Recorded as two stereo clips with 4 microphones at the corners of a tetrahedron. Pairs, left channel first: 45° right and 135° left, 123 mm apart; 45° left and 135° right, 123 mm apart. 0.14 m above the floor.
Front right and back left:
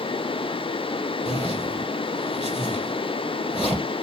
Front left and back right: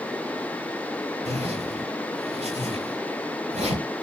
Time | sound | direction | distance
1.2 | a zipper | 135° right | 3 m